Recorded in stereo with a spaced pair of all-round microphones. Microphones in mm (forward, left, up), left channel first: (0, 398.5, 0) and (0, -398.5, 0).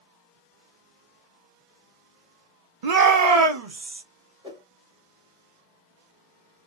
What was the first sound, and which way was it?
A shout, 55° right (ahead or behind).